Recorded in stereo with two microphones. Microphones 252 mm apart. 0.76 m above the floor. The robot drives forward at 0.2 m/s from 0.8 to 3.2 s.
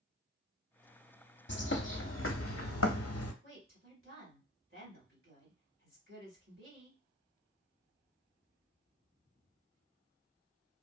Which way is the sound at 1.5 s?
45° left (ahead or behind).